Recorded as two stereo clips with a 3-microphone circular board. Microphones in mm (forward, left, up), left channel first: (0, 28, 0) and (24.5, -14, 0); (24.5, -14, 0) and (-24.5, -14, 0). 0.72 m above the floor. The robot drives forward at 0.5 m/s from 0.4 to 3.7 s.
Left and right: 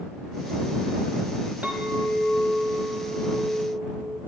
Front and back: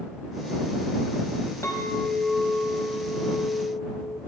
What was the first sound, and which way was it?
A clink, 5° right.